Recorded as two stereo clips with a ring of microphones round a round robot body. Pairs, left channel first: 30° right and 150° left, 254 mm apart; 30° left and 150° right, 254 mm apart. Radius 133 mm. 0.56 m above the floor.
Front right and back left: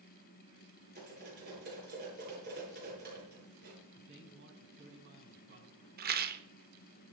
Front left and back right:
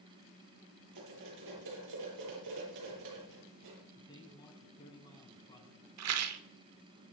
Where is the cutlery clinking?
160° right, 7.5 m.